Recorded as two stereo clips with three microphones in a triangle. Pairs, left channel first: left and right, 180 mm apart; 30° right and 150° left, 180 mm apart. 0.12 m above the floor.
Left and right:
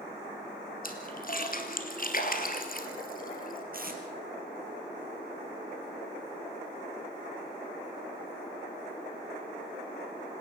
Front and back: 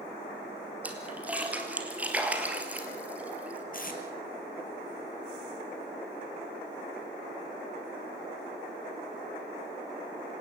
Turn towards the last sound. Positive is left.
turn(degrees=-60)